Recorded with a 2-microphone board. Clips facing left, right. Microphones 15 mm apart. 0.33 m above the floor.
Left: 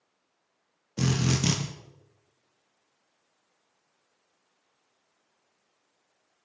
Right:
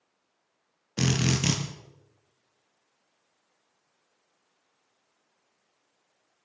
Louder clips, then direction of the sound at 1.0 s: Right 1 dB; 40° right (ahead or behind).